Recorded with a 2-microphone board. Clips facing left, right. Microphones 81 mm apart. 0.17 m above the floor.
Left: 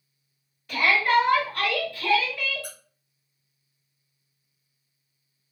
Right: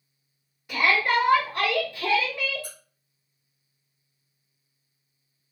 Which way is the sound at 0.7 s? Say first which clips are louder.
Left 1 dB; 20° right (ahead or behind).